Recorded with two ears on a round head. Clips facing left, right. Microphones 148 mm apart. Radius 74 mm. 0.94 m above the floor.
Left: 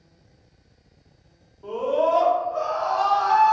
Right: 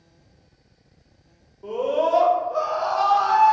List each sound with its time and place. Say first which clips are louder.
1.6 s a scream: even; 15° right (ahead or behind), 0.7 m; by 3.5 s 55° right (ahead or behind), 1.3 m